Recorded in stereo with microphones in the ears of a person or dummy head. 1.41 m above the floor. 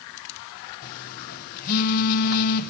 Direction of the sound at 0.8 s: 55° left (ahead or behind).